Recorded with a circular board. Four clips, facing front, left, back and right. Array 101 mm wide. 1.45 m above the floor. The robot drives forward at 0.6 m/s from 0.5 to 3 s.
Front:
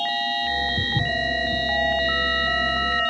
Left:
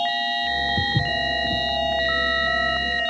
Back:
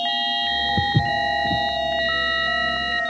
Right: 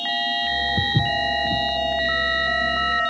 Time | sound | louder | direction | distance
0.8 | footsteps | right 1 dB, back 5 dB | 160° right | 1.7 m